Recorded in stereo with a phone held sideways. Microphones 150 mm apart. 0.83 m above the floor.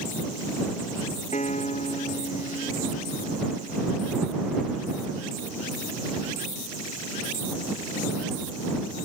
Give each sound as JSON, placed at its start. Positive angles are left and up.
{"t": 1.3, "sound": "a piano", "side_deg": 55}